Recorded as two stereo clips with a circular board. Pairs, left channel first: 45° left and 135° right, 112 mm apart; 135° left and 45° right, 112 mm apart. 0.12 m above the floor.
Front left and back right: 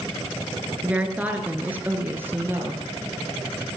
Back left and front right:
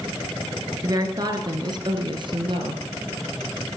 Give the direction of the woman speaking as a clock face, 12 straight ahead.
2 o'clock.